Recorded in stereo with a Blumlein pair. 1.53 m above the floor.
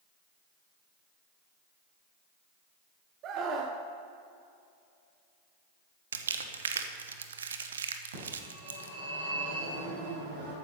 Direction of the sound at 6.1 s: 70° right.